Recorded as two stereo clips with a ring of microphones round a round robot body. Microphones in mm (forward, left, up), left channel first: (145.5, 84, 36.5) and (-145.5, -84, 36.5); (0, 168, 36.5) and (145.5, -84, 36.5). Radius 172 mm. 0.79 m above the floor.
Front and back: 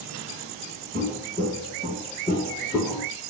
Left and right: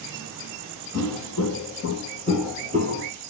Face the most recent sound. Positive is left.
turn(degrees=-45)